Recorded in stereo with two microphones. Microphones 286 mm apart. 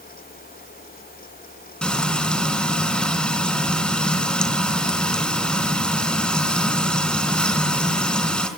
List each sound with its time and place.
1.8 s frying: 5° left (ahead or behind), 3.5 m